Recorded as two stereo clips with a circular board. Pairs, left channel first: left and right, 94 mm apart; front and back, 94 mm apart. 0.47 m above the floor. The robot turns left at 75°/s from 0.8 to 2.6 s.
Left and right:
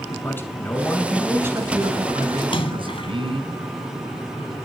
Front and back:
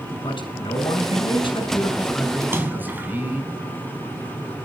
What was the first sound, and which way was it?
A man speaking, 25° left.